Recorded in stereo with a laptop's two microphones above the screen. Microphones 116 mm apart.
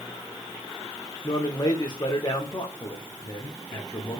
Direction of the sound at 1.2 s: 35° left (ahead or behind).